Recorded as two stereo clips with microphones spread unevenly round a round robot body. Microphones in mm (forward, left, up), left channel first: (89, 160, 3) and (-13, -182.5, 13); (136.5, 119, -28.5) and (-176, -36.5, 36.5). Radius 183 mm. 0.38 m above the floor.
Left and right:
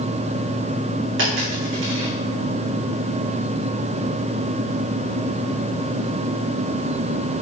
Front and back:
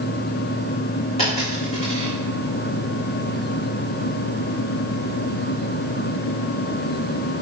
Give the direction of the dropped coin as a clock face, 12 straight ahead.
2 o'clock.